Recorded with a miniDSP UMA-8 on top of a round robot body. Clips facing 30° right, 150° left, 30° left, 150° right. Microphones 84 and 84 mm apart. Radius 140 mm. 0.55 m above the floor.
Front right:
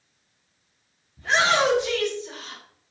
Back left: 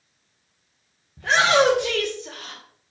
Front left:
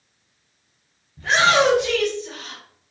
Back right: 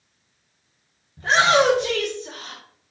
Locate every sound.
1.2 s a shout: 155° left, 3.5 m; by 2.6 s 165° left, 3 m